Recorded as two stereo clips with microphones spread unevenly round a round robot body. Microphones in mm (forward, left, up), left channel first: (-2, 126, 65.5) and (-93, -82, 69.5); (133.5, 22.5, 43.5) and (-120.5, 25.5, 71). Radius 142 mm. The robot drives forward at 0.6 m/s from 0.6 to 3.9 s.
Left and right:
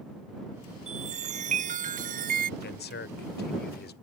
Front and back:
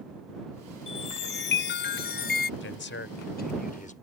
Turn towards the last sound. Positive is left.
turn(degrees=45)